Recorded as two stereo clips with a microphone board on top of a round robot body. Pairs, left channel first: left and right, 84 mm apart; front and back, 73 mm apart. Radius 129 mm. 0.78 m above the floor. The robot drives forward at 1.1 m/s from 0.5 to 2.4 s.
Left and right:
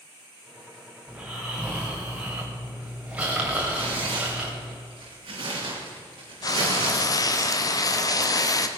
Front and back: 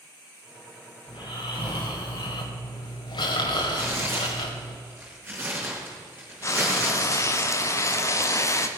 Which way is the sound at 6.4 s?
45° left.